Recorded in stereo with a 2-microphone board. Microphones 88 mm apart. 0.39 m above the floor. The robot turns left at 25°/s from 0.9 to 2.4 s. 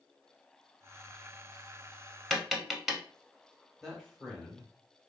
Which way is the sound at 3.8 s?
Centre (ahead or behind).